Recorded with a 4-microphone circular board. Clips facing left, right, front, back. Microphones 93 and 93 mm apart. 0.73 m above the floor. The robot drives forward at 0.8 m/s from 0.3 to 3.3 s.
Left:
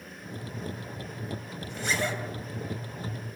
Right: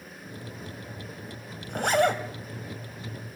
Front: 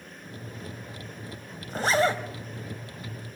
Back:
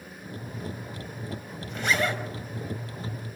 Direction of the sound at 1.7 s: 55° right.